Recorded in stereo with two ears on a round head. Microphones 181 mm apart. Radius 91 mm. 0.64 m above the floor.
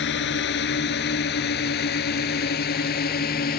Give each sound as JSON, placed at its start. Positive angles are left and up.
{"t": 0.0, "sound": "a drone", "side_deg": 60}